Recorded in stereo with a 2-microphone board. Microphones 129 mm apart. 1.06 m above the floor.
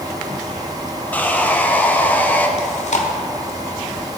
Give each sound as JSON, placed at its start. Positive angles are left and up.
{"t": 1.1, "sound": "sawing", "side_deg": 15, "distance_m": 0.9}
{"t": 2.6, "sound": "chewing", "side_deg": 65, "distance_m": 1.4}